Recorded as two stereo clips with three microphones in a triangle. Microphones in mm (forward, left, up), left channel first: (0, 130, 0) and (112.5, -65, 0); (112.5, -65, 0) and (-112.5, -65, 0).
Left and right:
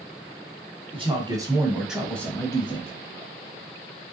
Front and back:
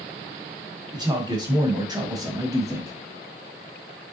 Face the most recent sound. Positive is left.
turn(degrees=115)